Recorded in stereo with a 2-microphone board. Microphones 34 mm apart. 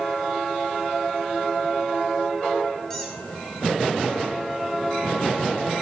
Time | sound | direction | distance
2.9 | a squeak | 15° left (ahead or behind) | 4 m